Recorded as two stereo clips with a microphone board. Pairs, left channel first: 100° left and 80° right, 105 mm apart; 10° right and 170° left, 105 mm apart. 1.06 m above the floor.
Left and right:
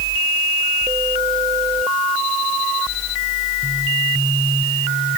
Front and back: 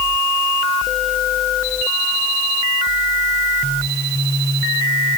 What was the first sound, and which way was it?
Only background noise.